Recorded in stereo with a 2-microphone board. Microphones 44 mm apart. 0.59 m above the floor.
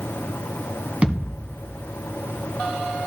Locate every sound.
1.0 s a thud: 25° right (ahead or behind), 1.9 m